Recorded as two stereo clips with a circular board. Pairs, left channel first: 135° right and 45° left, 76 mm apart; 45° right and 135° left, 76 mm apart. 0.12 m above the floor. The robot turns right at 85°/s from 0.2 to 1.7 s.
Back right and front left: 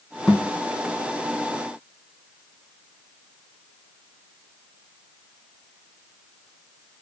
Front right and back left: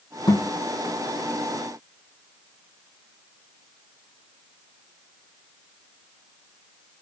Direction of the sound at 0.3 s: 55° right.